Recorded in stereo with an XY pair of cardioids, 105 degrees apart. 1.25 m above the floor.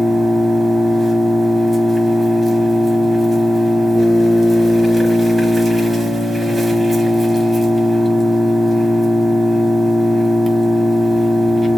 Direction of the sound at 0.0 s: 25° right.